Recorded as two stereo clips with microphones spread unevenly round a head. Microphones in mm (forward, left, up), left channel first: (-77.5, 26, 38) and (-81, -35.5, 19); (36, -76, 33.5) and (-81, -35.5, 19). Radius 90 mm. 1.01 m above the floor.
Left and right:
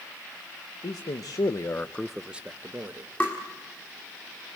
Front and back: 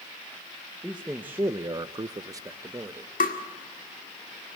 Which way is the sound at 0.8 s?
80° left.